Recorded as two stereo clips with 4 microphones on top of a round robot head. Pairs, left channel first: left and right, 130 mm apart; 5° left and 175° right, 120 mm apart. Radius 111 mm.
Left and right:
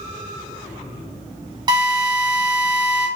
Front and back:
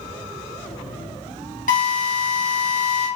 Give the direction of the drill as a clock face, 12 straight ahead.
1 o'clock.